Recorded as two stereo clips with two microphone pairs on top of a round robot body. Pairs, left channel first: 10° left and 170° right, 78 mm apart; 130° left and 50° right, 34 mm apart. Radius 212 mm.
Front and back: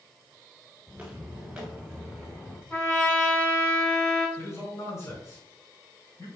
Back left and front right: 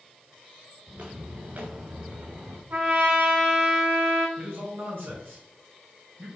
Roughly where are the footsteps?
Right.